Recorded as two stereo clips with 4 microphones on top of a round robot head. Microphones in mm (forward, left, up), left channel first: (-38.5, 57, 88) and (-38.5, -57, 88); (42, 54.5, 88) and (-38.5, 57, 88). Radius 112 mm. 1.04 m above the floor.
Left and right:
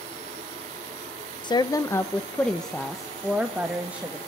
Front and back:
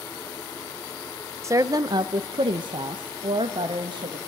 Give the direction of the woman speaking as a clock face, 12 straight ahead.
8 o'clock.